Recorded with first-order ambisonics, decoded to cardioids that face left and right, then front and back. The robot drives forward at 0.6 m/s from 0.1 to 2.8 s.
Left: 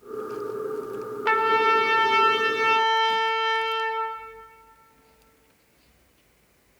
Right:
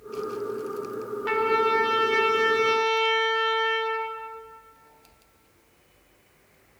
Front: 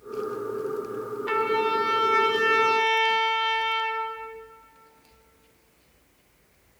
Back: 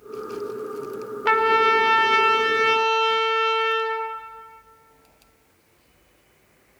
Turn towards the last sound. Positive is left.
turn(degrees=165)